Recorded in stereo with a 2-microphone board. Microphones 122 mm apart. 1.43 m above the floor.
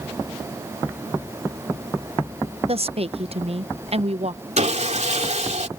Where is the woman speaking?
55° right (ahead or behind).